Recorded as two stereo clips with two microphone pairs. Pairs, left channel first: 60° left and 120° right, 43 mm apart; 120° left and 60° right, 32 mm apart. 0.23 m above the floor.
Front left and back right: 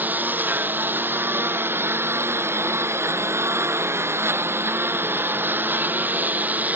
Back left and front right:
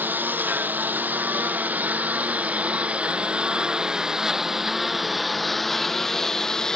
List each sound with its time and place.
0.0 s a lawn mower: 75° right; by 6.8 s 170° right